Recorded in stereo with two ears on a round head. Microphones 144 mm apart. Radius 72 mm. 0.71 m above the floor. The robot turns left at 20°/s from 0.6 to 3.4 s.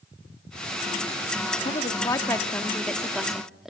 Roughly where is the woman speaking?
Ahead left.